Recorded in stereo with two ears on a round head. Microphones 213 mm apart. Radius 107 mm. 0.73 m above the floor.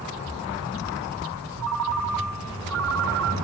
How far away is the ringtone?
About 1.2 m.